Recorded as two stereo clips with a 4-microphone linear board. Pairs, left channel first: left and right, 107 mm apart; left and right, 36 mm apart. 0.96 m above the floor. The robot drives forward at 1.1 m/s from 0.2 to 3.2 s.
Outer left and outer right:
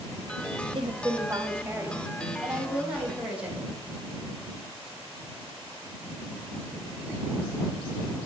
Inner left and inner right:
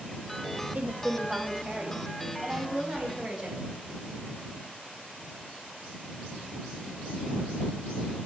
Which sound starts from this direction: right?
A woman speaking, at 0.8 s.